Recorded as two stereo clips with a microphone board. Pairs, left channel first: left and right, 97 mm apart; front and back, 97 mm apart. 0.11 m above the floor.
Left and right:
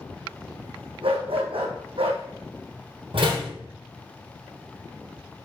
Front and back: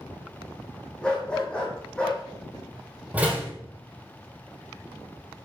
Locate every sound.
1.0 s a dog barking: 80° right, 2 m
3.1 s a door slam: 105° right, 3.5 m